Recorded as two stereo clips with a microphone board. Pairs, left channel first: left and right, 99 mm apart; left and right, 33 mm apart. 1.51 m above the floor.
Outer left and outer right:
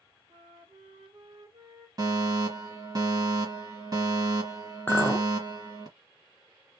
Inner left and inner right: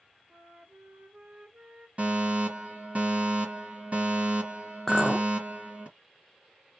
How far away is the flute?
About 1.3 m.